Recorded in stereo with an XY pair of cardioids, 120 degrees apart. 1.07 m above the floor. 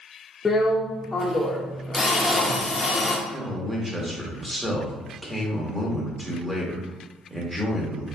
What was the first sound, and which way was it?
A drill, 25° left.